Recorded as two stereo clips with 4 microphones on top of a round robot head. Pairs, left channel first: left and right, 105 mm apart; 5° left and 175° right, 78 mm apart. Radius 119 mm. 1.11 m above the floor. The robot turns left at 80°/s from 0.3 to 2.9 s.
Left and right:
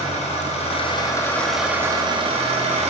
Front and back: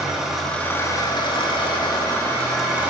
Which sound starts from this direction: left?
An engine running, at 0.0 s.